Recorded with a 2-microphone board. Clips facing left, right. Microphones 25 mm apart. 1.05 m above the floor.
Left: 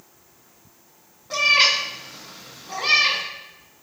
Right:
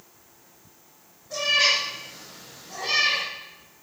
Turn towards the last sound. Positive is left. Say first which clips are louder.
# left 4 dB
turn(degrees=65)  # may be behind; listen again after turning